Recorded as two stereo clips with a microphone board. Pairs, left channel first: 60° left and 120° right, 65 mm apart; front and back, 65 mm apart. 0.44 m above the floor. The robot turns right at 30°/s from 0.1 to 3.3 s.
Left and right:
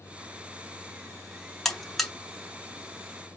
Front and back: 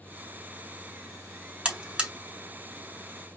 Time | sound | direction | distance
1.6 | a buzzer | 135° left | 1.0 m